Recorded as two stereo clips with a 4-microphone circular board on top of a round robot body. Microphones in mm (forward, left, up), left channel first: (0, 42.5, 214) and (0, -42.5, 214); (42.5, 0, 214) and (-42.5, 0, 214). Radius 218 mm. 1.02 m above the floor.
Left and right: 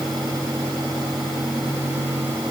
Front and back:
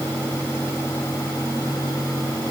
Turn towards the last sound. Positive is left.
No sound to turn to.